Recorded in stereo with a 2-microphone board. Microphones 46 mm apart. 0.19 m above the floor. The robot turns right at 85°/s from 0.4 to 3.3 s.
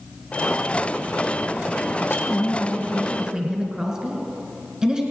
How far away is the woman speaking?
About 2 m.